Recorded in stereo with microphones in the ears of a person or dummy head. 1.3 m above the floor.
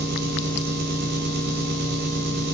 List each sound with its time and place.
0.0 s an engine running: 60° right (ahead or behind), 2.5 m